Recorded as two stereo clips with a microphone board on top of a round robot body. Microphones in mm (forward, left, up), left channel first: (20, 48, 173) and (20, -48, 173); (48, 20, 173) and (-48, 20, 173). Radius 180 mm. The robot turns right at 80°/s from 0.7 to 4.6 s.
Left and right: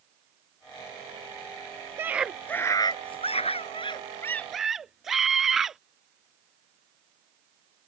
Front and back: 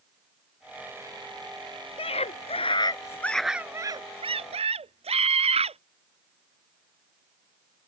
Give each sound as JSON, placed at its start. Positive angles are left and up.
{"t": 2.0, "sound": "a scream", "azimuth_deg": -25}